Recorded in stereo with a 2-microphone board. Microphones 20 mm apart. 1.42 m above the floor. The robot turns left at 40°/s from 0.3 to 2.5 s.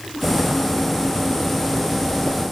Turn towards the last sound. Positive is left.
No sound to turn to.